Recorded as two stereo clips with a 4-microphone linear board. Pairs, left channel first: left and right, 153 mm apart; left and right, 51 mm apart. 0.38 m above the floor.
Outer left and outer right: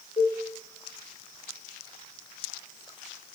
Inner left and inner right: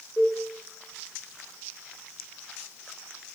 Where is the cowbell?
40° left (ahead or behind), 6 m.